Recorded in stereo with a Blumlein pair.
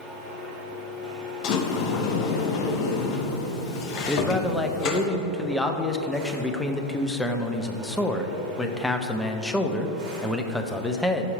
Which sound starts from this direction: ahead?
A man speaking, at 4.1 s.